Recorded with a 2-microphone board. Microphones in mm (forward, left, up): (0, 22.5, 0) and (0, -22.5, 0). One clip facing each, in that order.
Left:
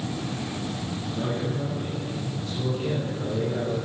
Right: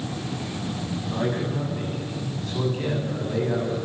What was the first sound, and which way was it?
A man speaking, 60° right (ahead or behind).